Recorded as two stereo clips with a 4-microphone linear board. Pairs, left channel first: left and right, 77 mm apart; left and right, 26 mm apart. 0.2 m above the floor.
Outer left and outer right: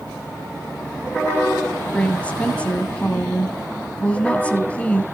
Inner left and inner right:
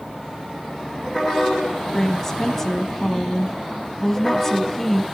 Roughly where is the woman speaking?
Centre.